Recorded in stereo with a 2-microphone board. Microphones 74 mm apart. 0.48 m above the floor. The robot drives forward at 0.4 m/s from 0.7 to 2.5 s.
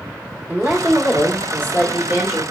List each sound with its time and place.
0.5 s a woman speaking: 25° right (ahead or behind), 1.3 m